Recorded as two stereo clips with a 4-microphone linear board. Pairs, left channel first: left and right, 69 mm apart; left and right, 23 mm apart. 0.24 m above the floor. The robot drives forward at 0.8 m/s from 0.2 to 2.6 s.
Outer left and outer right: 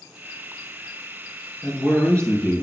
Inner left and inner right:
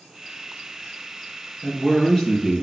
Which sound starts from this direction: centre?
A man speaking, at 1.6 s.